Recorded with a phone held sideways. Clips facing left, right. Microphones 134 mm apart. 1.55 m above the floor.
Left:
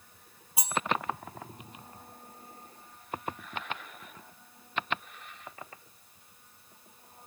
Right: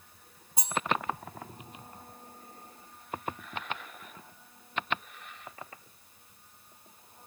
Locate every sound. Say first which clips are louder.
0.6 s cutlery clinking: left 1 dB; 10° left (ahead or behind), 1.3 m